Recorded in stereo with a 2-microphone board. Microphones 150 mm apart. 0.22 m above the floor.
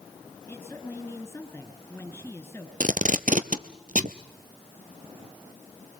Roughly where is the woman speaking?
Centre.